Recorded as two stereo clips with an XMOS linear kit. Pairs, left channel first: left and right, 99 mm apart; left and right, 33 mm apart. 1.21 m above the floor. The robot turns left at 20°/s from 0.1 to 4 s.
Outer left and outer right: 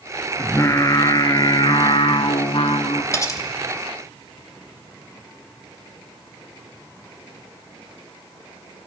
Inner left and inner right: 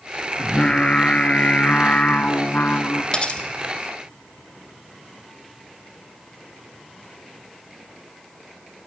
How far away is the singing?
About 0.9 m.